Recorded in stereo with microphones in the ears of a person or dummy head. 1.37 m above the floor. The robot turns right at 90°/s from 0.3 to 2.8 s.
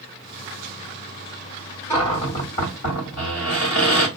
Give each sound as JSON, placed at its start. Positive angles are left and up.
{"t": 1.9, "sound": "a cupboard door", "azimuth_deg": 10, "distance_m": 1.5}